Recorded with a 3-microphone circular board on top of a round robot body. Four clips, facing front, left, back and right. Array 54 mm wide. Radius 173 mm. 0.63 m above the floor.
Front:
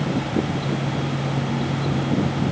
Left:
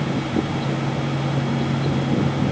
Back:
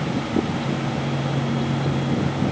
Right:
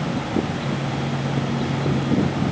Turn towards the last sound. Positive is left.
No sound to turn to.